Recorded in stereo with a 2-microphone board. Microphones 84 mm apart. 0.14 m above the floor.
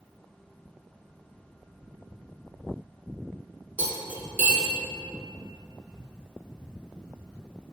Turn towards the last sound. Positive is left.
turn(degrees=-25)  # may be behind; listen again after turning